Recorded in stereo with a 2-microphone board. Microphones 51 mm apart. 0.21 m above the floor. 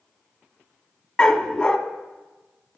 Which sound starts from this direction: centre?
A dog barking, at 1.2 s.